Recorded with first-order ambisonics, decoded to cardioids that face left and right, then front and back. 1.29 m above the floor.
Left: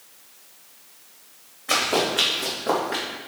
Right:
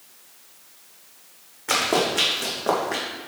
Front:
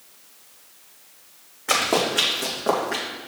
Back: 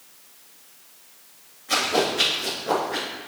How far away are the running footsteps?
About 3.5 m.